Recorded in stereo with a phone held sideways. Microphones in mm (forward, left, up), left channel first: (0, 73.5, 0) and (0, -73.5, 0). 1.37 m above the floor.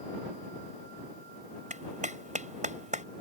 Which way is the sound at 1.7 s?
55° right (ahead or behind).